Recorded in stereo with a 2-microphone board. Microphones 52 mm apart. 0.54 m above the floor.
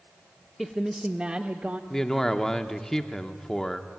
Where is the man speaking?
10° left (ahead or behind), 1.0 m.